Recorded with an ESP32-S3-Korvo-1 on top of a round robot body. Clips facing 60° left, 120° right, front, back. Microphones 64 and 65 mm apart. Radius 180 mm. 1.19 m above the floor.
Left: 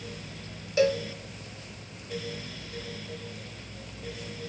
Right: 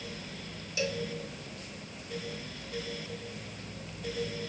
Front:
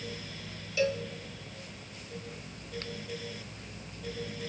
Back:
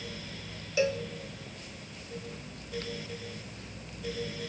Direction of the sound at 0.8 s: 110° left.